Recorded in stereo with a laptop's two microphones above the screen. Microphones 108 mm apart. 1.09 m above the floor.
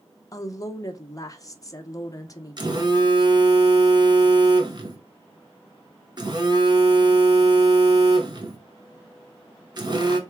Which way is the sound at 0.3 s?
30° left (ahead or behind).